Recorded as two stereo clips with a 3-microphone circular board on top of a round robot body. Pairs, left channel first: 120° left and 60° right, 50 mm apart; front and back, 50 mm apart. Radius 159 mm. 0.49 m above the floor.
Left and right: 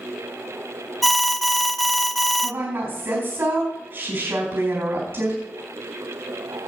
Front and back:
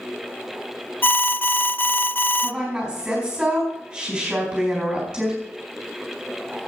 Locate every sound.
1.0 s an alarm: 30° left, 0.6 m
2.4 s a woman speaking: 100° right, 5 m